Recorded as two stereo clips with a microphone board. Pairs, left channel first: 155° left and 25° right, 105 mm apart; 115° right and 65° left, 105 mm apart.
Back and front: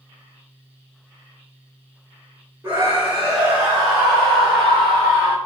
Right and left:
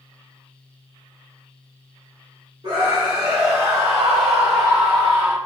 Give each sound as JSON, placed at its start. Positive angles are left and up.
{"t": 2.6, "sound": "a scream", "azimuth_deg": 45, "distance_m": 2.0}